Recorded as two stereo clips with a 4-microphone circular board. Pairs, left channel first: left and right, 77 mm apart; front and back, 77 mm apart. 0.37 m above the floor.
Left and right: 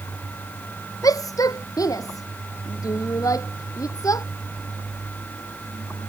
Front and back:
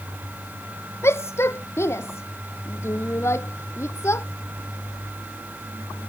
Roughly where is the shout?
Ahead left.